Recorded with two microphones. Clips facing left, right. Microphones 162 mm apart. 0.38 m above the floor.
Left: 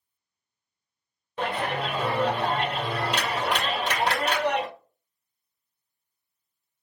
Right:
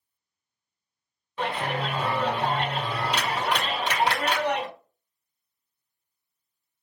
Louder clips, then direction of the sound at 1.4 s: Left 1 dB; 45° left (ahead or behind).